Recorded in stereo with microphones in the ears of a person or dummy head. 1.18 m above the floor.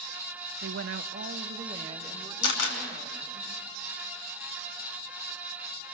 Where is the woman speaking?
50° right (ahead or behind), 0.7 m; by 3.4 s 20° right (ahead or behind), 3 m.